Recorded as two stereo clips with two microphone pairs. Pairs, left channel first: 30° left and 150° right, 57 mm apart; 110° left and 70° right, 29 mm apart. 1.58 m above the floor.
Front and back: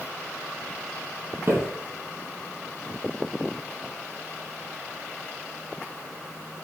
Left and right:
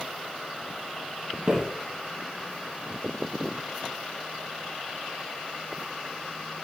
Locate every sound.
1.5 s footsteps: 130° right, 3 m